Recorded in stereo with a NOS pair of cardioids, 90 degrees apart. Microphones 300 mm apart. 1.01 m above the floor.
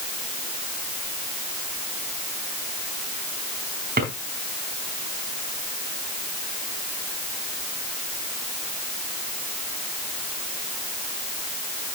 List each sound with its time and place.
4.0 s a drawer: 30° right, 4 m